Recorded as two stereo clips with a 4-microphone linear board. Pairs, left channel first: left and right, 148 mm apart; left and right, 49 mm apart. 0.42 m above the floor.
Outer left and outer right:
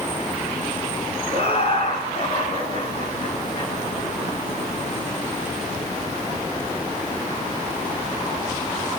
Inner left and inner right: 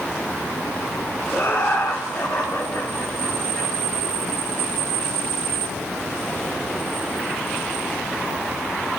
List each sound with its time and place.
1.3 s laughter: 45° left (ahead or behind), 4.5 m; by 3.7 s 35° left (ahead or behind), 7 m